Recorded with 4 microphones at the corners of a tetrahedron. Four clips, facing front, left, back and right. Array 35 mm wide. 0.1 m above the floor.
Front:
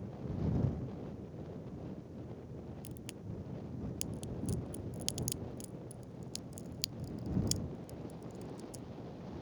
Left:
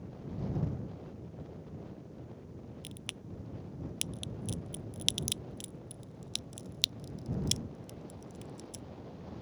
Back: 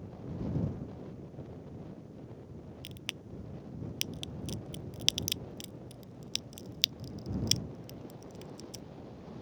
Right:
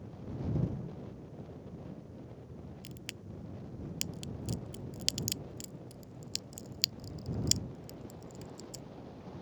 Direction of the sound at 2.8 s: 165° left.